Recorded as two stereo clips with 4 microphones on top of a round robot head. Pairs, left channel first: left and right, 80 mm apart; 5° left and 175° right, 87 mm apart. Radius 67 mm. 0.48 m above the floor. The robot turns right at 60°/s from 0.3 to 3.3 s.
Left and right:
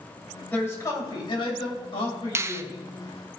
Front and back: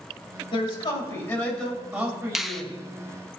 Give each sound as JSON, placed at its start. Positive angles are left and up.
{"t": 0.5, "sound": "a man speaking", "azimuth_deg": 15, "distance_m": 4.0}
{"t": 2.4, "sound": "a finger snap", "azimuth_deg": -90, "distance_m": 0.7}